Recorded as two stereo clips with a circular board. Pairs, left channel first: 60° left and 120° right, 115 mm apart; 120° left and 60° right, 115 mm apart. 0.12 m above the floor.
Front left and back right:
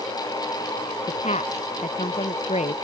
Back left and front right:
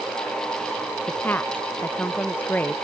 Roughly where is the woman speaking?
Ahead left.